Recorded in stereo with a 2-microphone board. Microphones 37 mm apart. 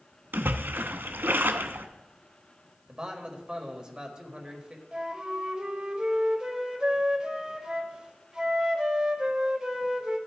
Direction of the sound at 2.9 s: 25° right (ahead or behind).